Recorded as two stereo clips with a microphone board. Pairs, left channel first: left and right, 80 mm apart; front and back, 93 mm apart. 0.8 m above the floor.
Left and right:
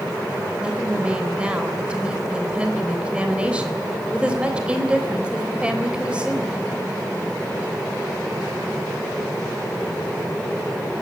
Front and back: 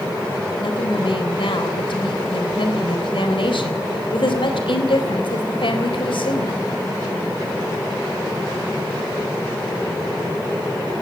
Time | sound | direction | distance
0.6 | a woman speaking | 15° right | 3.5 m